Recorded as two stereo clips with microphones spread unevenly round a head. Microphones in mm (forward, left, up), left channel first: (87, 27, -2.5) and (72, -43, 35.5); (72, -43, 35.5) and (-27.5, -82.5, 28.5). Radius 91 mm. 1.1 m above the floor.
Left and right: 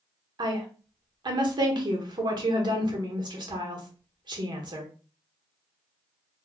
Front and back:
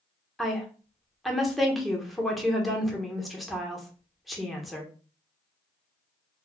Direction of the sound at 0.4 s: 70° right.